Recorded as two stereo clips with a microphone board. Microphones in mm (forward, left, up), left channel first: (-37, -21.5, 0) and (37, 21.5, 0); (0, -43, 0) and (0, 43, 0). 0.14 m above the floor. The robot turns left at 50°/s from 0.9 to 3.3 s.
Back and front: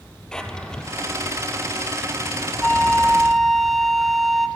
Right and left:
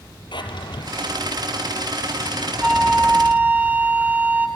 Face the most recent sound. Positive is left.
turn(degrees=125)